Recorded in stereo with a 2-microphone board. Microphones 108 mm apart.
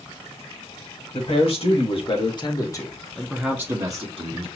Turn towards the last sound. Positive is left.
turn(degrees=-50)  # may be behind; listen again after turning